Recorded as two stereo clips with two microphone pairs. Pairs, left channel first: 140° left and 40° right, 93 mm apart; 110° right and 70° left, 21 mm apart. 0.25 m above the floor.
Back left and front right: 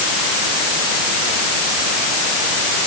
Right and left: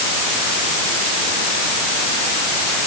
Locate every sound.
Only background noise.